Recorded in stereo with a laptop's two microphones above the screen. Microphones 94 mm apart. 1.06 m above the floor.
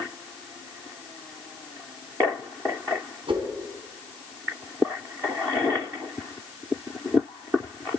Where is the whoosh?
70° right (ahead or behind), 2.5 m.